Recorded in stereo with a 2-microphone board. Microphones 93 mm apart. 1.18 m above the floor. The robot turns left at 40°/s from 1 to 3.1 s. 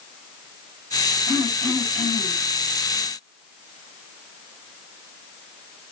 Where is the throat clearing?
95° right, 9.5 m; by 2.4 s 140° right, 9.5 m.